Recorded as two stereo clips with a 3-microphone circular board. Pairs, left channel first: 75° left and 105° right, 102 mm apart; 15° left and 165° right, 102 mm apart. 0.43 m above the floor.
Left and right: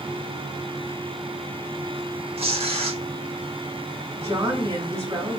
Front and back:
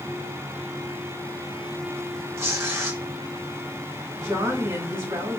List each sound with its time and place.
2.4 s tearing paper: 100° right, 0.6 m
4.2 s a woman speaking: 135° right, 1.3 m